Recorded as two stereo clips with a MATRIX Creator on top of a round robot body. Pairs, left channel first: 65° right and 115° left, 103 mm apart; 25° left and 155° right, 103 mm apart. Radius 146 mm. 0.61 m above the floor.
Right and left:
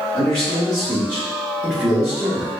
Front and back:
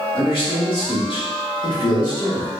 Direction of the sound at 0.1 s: Straight ahead.